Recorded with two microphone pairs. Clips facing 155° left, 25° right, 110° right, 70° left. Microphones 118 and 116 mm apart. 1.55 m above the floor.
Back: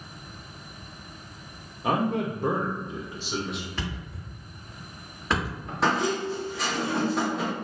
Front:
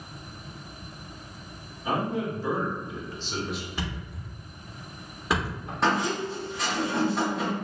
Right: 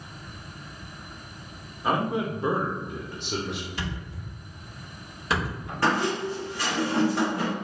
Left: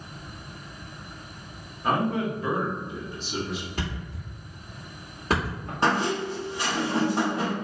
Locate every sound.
1.8 s a man speaking: 165° left, 0.7 m; by 3.7 s 105° right, 0.7 m
3.8 s a thud: 50° left, 1.3 m
5.8 s a squeak: 65° left, 1.0 m